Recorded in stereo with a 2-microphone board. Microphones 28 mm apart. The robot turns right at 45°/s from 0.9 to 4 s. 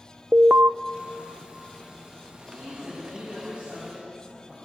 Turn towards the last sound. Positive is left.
turn(degrees=-20)